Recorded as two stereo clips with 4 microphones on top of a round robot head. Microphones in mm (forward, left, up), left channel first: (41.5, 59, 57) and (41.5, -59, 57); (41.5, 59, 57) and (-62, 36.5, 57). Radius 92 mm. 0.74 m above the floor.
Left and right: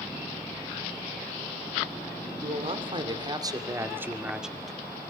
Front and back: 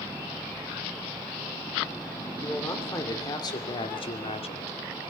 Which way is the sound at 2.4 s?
60° right.